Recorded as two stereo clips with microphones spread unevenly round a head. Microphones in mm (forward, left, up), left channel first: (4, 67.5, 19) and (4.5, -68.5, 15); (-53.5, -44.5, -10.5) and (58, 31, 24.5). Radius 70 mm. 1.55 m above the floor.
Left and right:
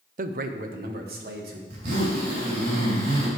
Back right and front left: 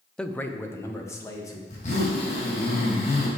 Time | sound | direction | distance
0.2 | a man speaking | 60° right | 0.6 m
1.7 | a zipper | 105° right | 3.5 m